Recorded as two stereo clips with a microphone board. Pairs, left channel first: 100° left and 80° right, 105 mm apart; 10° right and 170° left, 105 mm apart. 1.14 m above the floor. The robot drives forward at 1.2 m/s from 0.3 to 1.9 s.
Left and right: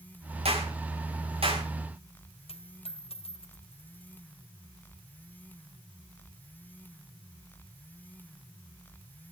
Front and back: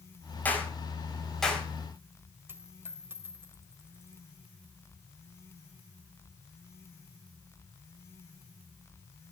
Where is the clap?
85° right, 5 m; by 1.7 s 100° right, 5 m.